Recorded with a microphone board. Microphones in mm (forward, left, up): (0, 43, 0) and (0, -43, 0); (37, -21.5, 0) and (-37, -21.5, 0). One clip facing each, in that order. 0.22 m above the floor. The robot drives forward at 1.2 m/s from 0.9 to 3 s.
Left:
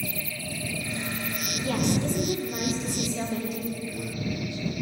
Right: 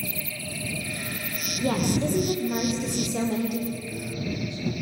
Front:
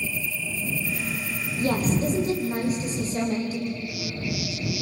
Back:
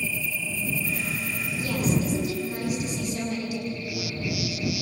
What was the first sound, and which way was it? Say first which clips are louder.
A woman speaking: right 2 dB, front 2 dB; 45° right.